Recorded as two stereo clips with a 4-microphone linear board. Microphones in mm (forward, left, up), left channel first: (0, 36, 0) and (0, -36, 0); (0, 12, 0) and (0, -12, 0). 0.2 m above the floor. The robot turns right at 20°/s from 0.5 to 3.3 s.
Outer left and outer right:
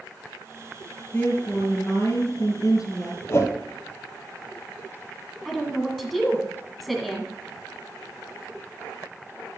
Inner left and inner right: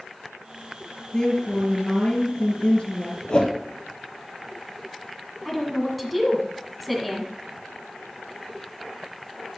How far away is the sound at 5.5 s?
About 1.7 m.